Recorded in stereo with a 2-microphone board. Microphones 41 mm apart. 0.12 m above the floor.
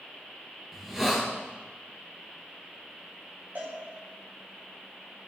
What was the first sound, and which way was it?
A hiss, 10° right (ahead or behind).